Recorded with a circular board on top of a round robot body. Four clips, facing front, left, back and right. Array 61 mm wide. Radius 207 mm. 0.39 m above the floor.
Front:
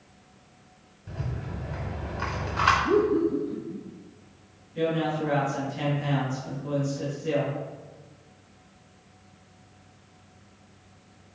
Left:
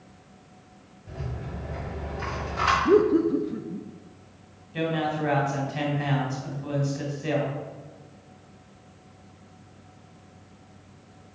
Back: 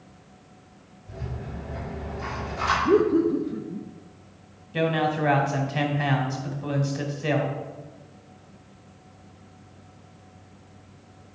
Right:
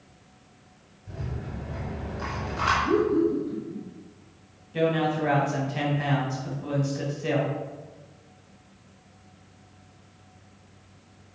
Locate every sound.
1.1 s a rattle: 5° left, 4 m
2.9 s laughter: 120° left, 0.9 m
4.7 s a man speaking: straight behind, 2.5 m